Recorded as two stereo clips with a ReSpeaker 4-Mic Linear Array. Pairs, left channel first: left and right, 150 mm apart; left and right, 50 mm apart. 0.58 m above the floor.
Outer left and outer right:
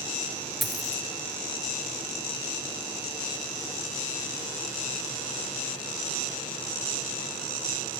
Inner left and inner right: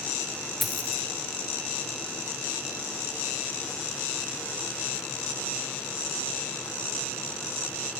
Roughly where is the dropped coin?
Centre.